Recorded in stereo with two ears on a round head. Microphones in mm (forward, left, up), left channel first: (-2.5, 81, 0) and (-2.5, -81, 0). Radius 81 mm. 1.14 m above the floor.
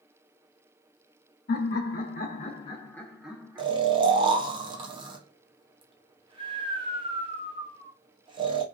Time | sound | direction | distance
1.5 | laughter | 55° left (ahead or behind) | 1.1 m
3.6 | snoring | 25° right (ahead or behind) | 0.5 m